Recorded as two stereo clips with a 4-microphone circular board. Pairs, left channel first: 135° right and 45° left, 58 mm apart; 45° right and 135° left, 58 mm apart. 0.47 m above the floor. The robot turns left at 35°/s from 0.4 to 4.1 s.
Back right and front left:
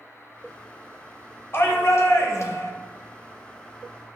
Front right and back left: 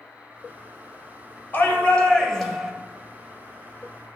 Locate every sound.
1.5 s a shout: 100° right, 2.0 m; by 2.7 s 140° right, 2.0 m